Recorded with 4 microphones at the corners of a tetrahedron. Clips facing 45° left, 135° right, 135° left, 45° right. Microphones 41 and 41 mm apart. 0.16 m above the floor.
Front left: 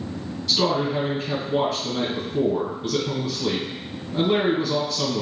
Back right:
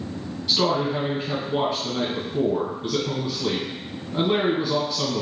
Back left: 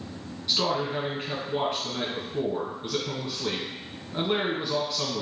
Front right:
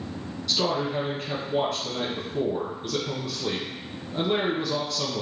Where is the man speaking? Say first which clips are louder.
Even, front right 1 dB; 170° left, 1.1 m.